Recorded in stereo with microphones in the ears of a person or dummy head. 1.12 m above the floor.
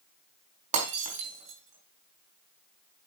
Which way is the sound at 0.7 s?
45° right (ahead or behind).